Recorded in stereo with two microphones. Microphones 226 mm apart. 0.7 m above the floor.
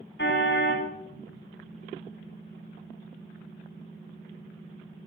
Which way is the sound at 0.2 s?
50° left (ahead or behind).